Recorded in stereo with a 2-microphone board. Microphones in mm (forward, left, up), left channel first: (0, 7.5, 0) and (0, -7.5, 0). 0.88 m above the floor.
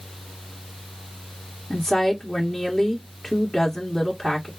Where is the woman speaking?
25° left (ahead or behind), 1.5 m.